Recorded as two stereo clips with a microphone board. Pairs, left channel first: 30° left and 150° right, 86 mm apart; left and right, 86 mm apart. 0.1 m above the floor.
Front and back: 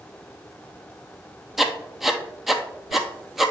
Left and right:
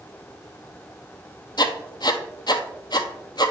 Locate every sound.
1.6 s writing: 125° left, 0.6 m